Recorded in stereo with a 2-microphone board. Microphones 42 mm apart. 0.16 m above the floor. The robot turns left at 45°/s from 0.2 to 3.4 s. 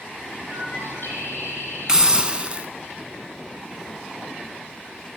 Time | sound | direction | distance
0.5 | a bird | 135° left | 6.5 m
1.9 | a hiss | 20° right (ahead or behind) | 1.1 m